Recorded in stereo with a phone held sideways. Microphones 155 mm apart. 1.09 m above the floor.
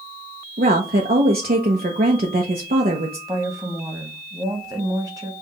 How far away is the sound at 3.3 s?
About 1.3 m.